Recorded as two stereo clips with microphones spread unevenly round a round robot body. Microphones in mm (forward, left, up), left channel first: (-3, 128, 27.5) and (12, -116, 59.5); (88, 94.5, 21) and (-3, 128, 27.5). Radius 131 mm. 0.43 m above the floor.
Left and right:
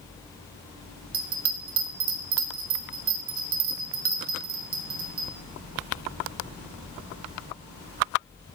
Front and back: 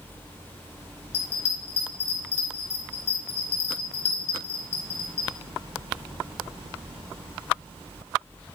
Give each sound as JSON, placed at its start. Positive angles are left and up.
{"t": 1.1, "sound": "a bell", "azimuth_deg": -50, "distance_m": 1.0}